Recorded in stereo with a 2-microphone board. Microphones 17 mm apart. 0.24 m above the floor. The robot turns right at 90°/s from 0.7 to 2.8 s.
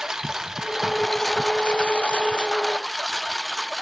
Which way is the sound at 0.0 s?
35° right.